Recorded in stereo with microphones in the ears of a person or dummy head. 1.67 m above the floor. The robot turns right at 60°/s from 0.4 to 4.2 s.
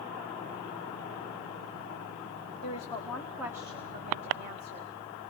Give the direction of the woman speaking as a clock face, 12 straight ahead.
7 o'clock.